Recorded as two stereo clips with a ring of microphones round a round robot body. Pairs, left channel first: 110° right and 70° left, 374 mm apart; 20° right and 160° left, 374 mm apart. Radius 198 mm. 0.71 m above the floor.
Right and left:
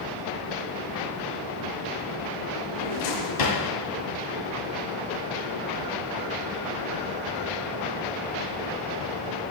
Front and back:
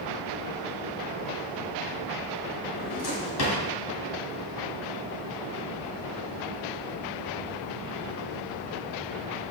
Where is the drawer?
75° right, 2.5 m.